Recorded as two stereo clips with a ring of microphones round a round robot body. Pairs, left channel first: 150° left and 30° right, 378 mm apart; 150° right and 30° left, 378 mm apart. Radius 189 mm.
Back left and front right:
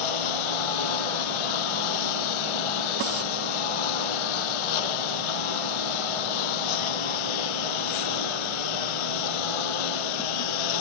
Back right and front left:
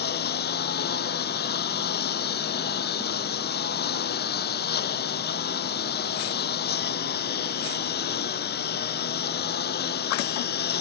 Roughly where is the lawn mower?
Behind left.